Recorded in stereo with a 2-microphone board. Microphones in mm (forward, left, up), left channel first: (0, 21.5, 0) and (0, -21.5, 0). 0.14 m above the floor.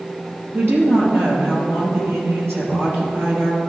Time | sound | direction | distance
0.5 | a woman speaking | 60° right (ahead or behind) | 3 m